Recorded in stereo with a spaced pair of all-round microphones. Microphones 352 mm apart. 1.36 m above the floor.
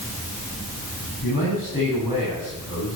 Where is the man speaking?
85° left, 8.5 m.